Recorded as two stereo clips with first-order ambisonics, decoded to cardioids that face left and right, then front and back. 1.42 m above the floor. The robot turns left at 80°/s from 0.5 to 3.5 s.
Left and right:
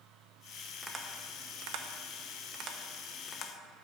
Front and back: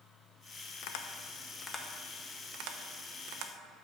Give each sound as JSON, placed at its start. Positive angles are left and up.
{"t": 0.8, "sound": "tapping", "azimuth_deg": 0, "distance_m": 0.9}